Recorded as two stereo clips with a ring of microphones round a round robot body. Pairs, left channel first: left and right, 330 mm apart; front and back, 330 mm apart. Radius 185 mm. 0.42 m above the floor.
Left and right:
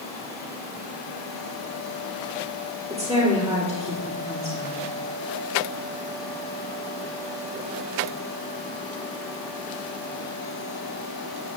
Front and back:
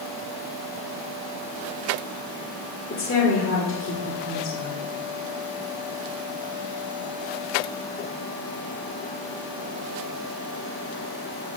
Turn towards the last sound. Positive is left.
turn(degrees=-25)